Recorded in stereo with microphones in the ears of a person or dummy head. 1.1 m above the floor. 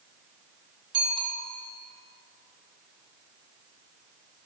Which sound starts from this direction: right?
A bicycle bell, at 0.9 s.